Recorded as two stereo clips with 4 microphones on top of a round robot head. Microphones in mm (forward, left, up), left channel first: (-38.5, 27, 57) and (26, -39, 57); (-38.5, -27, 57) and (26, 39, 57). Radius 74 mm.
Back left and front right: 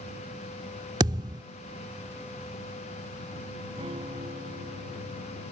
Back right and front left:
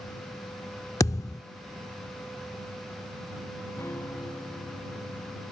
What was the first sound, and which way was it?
A thud, 80° right.